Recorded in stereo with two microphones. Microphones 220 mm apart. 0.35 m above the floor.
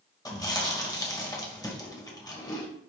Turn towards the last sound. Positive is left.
turn(degrees=15)  # may be behind; listen again after turning